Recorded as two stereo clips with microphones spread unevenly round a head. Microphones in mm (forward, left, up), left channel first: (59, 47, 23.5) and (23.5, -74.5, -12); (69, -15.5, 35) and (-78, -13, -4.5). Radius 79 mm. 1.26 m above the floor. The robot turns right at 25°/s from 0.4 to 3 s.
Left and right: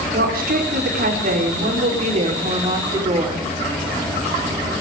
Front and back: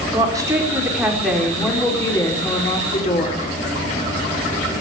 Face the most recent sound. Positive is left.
turn(degrees=-50)